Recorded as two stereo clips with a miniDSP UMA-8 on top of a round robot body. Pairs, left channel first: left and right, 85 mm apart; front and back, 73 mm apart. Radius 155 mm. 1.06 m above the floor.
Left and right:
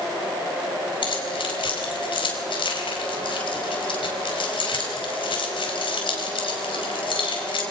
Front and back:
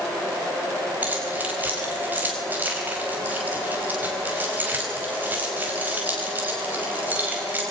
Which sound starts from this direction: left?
Keys jangling, at 1.0 s.